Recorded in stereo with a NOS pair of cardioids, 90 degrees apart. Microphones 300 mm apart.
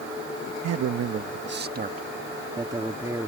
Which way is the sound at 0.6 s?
70° right.